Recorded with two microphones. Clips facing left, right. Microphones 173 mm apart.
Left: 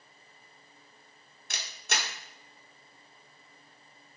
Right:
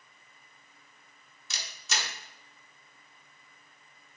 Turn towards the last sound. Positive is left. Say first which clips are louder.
# left 2 dB
turn(degrees=60)  # may be behind; listen again after turning